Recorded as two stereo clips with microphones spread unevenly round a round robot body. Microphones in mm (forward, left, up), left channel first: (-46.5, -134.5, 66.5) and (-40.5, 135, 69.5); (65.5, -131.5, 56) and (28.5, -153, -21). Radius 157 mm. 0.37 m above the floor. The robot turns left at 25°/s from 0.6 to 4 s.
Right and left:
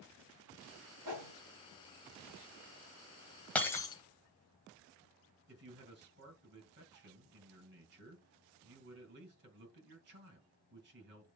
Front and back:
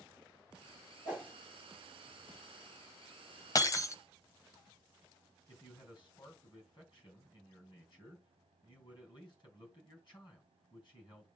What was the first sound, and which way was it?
A whoosh, 85° left.